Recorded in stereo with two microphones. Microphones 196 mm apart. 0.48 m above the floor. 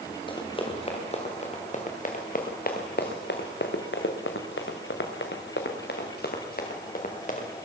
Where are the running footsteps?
25° left (ahead or behind), 4 m; by 7.5 s 40° left (ahead or behind), 3.5 m.